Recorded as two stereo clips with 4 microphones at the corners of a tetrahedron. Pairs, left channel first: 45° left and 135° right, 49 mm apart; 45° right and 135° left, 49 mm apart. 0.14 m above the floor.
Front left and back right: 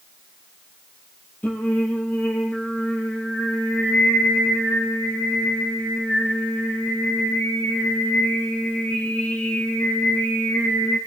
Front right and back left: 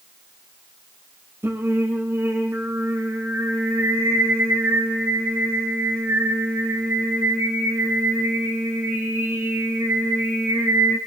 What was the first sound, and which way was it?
Singing, 100° left.